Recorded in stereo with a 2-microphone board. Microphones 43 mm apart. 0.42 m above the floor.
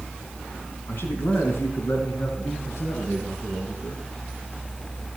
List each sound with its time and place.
0.9 s a man speaking: 60° left (ahead or behind), 3 m; by 4.0 s 75° left (ahead or behind), 7.5 m